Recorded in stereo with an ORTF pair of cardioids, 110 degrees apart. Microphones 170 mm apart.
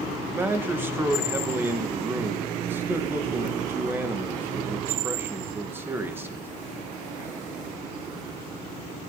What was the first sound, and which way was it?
A man speaking, 15° right.